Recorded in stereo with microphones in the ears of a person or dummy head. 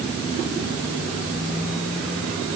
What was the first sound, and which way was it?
Only background noise.